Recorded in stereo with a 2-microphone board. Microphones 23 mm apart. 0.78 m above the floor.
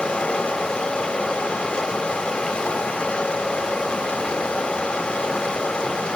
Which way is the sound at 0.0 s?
45° left (ahead or behind).